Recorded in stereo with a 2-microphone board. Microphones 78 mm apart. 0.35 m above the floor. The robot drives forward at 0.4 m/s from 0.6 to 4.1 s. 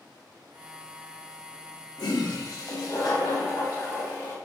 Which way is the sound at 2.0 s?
65° left (ahead or behind).